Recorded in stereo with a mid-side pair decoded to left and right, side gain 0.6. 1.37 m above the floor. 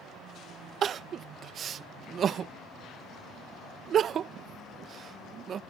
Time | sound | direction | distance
0.8 | crying | 40° right | ?